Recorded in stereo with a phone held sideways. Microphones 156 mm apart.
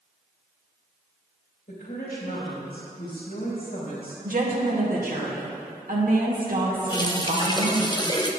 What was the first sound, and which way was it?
A woman speaking, 85° left.